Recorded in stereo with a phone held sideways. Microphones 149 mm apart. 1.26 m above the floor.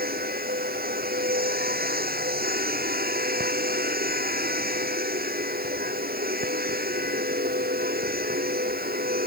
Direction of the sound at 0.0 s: 90° right.